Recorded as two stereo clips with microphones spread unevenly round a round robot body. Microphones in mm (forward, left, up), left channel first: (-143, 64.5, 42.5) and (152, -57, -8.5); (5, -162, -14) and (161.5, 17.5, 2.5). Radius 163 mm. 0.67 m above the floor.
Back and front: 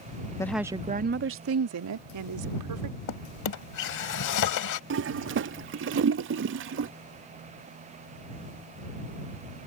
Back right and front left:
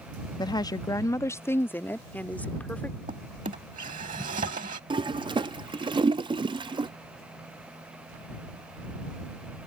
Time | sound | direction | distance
0.4 | a woman speaking | 115° right | ?
3.1 | a drawer | 120° left | ?
4.9 | a toilet flushing | 20° right | ?